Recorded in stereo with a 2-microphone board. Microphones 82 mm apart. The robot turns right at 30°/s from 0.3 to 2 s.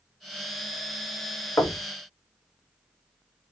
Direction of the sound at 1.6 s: 30° left (ahead or behind).